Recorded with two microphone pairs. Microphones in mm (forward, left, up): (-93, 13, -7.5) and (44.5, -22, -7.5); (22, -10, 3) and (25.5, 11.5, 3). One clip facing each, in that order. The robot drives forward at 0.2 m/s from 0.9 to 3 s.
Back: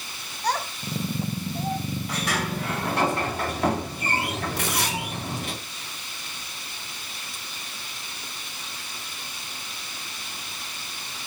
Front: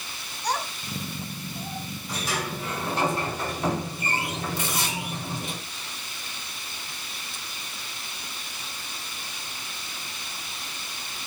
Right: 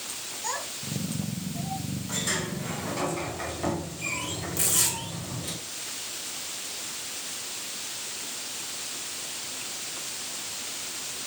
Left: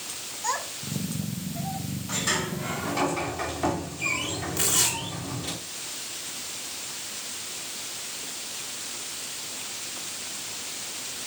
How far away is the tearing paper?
About 3.5 m.